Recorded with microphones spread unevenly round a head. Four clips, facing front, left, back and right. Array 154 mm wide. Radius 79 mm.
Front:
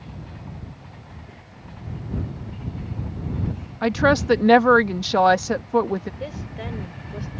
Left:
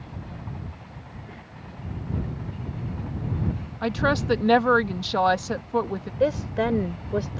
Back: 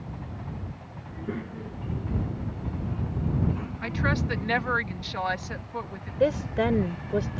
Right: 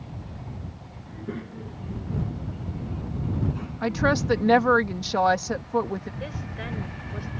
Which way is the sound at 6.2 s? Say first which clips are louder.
Left 13 dB, back 9 dB; 130° left.